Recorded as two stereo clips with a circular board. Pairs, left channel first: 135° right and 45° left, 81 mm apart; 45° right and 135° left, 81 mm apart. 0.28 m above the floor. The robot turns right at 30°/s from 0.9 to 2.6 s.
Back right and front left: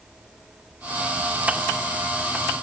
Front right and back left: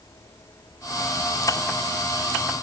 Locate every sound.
Only background noise.